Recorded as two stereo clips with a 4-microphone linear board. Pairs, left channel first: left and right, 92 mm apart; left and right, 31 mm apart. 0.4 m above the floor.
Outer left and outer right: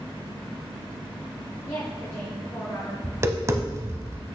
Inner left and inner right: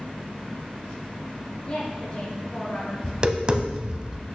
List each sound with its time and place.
1.6 s a woman speaking: 30° left (ahead or behind), 1.6 m
3.0 s tapping: 30° right (ahead or behind), 0.6 m